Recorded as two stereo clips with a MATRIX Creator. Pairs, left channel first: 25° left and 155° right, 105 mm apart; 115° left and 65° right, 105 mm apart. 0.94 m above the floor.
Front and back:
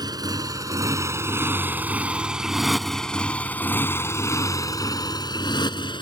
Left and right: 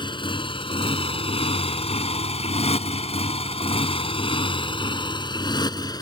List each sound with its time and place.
0.0 s a motorcycle: 155° left; by 6.0 s 65° left